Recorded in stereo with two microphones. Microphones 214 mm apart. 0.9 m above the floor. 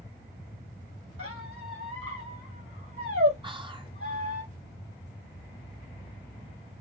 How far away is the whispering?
About 0.8 m.